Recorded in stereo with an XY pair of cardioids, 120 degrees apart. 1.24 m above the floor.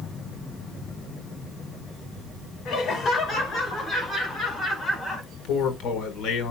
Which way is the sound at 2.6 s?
45° left.